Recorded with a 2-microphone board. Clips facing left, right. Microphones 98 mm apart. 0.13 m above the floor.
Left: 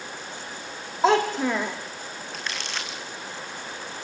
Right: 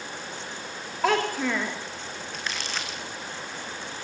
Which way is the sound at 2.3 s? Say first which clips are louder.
Even; centre (ahead or behind).